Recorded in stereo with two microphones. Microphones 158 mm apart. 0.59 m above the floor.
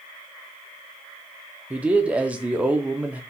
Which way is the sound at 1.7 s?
10° right (ahead or behind).